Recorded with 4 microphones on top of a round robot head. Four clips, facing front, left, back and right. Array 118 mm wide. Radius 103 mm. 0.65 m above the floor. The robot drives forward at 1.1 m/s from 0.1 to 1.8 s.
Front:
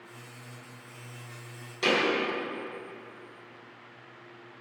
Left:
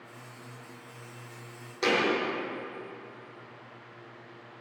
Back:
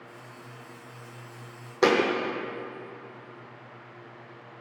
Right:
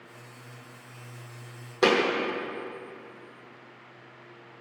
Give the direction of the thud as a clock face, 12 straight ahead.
5 o'clock.